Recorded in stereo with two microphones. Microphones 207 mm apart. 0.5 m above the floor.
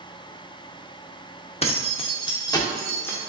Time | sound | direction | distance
1.6 | keys jangling | 30° left (ahead or behind) | 0.8 m